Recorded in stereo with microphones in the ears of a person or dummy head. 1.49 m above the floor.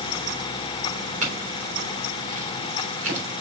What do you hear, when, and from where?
1.2 s a clink: 40° right (ahead or behind), 3.5 m